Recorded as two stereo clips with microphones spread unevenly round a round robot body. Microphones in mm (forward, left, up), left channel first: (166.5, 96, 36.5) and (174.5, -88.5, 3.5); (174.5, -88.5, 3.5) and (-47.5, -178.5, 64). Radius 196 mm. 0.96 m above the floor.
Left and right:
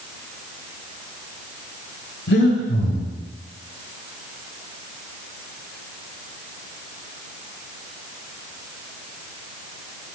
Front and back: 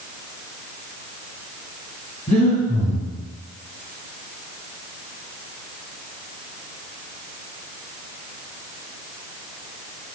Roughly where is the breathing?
Left.